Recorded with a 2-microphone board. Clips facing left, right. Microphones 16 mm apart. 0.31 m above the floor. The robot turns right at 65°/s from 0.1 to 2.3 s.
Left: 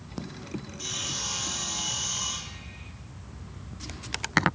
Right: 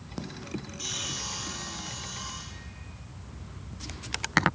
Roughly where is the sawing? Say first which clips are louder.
Left 2 dB; ahead.